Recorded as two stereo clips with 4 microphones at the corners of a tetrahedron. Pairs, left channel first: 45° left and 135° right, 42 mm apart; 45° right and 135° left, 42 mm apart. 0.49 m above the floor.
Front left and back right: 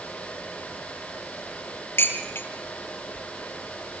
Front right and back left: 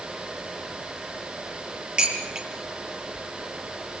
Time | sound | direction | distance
2.0 | dishes clattering | 70° left | 8 m